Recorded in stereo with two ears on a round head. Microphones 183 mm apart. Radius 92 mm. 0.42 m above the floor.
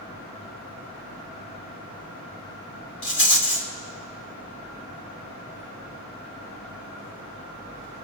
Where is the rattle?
55° left (ahead or behind), 1.7 m.